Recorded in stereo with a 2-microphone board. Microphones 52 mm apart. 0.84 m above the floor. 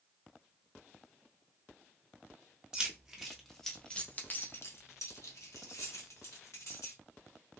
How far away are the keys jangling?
About 1.3 m.